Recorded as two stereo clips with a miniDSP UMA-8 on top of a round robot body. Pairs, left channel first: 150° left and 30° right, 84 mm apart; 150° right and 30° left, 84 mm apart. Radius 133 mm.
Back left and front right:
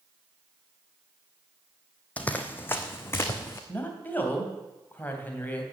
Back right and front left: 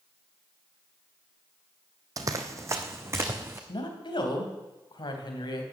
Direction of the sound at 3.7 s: 145° right.